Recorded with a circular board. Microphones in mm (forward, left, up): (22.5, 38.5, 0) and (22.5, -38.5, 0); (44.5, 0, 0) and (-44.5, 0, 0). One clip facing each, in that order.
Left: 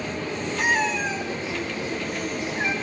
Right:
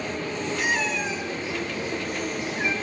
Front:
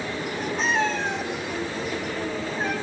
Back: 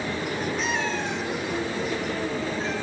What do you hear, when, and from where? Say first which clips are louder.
0.6 s a cat meowing: left 4 dB, front 3 dB; 50° left, 4.5 m; by 2.7 s 30° left, 4 m